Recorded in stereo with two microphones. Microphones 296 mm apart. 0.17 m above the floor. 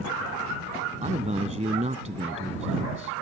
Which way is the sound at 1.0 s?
25° right (ahead or behind).